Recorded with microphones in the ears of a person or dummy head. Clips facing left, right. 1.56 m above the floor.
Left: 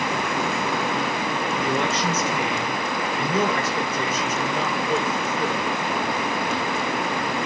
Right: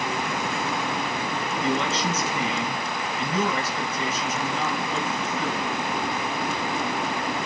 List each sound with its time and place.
1.6 s a man speaking: 50° left (ahead or behind), 7.5 m